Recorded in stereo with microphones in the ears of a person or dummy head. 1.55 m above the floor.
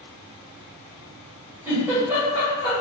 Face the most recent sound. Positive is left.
turn(degrees=-5)  # may be behind; listen again after turning